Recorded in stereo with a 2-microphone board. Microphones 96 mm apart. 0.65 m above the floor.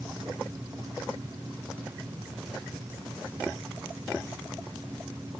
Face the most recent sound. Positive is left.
No sound to turn to.